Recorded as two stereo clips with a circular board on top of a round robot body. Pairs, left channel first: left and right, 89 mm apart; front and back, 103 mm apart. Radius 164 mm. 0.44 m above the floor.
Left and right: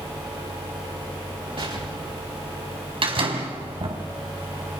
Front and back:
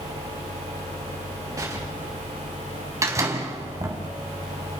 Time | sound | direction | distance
1.6 | an explosion | 120° right | 8.5 m
3.0 | a door slam | 120° right | 3.5 m